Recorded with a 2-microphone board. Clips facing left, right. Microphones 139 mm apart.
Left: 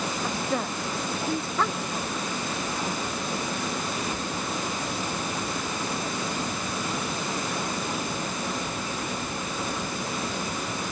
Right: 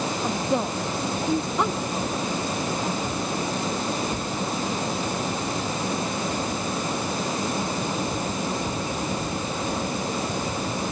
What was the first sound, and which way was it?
A woman speaking, 20° right (ahead or behind).